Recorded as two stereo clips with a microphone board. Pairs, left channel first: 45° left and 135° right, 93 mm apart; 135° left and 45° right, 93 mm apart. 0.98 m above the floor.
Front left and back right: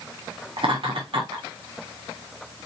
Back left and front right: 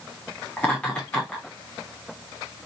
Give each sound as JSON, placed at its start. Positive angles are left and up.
{"t": 0.6, "sound": "laughter", "azimuth_deg": -150, "distance_m": 2.5}